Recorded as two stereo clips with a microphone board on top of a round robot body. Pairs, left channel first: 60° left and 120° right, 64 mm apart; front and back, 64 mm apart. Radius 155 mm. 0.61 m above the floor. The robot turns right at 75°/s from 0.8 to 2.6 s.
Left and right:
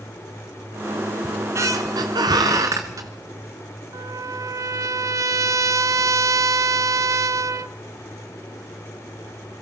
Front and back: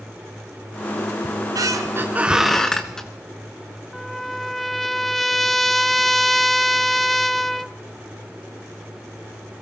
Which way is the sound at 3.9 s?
90° right.